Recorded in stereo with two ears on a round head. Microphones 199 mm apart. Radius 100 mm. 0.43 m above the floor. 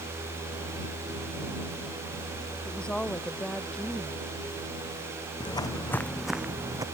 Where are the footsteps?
20° left (ahead or behind); by 6.8 s 15° right (ahead or behind).